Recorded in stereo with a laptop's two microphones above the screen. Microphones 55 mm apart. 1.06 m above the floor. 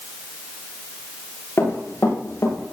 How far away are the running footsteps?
About 8 m.